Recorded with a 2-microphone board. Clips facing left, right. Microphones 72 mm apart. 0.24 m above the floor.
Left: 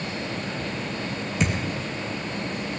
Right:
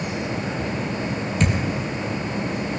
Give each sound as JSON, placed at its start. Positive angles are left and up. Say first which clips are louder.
{"t": 1.4, "sound": "a thud", "louder": "right 3 dB", "side_deg": 5, "distance_m": 2.0}